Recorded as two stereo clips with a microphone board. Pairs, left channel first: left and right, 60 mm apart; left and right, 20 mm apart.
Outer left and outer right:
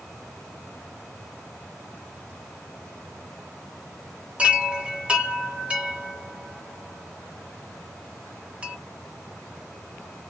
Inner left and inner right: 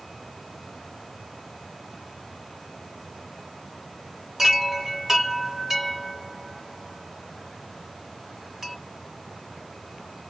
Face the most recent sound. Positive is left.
turn(degrees=-20)  # may be behind; listen again after turning